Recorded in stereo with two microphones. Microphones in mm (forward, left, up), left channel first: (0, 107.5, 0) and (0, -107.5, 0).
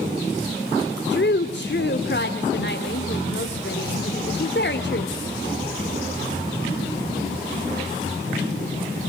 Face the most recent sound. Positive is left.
turn(degrees=55)  # may be behind; listen again after turning